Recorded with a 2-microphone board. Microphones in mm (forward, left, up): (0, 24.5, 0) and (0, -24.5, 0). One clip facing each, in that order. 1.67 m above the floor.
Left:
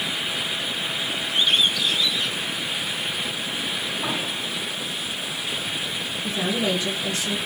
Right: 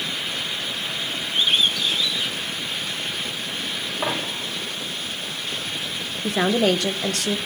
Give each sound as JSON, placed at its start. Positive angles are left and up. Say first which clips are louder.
{"t": 1.3, "sound": "a bird", "louder": "even", "side_deg": -10, "distance_m": 2.5}
{"t": 4.0, "sound": "a dropped coin", "louder": "right 1 dB", "side_deg": -60, "distance_m": 3.5}
{"t": 6.2, "sound": "a woman speaking", "louder": "right 6 dB", "side_deg": -65, "distance_m": 1.3}